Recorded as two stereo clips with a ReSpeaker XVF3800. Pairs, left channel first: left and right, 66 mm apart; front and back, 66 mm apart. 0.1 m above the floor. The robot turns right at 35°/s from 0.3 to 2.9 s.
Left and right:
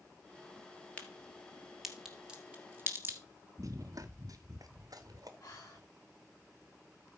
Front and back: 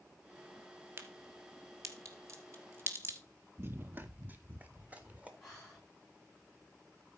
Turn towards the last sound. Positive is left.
turn(degrees=85)